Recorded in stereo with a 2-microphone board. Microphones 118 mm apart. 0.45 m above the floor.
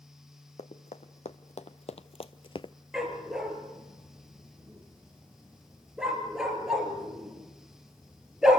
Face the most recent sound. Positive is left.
turn(degrees=-5)  # may be behind; listen again after turning